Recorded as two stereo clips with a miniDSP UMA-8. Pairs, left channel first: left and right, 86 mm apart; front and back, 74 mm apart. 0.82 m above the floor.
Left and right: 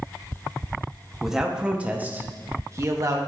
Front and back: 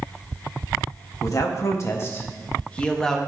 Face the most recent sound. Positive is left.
turn(degrees=-80)